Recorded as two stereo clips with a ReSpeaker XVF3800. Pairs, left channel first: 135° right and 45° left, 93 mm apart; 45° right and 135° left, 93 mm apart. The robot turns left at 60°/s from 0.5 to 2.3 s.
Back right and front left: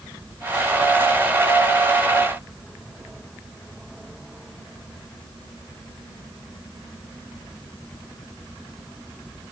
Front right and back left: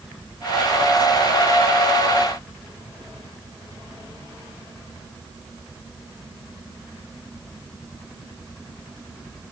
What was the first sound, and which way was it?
Only background noise.